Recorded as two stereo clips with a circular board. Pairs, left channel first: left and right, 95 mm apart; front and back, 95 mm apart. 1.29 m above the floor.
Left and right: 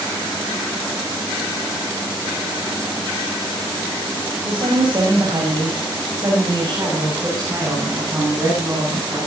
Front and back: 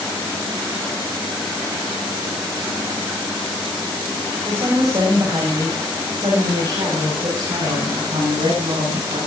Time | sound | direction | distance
4.5 | a woman speaking | 125° right | 7.5 m